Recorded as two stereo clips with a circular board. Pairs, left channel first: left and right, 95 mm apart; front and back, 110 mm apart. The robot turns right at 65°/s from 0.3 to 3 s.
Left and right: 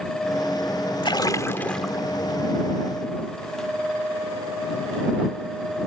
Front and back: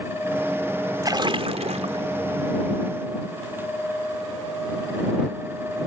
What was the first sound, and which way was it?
A splash, 120° left.